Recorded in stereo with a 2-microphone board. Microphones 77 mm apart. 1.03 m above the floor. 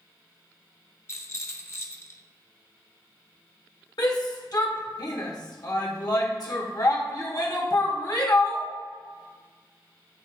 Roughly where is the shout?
Left.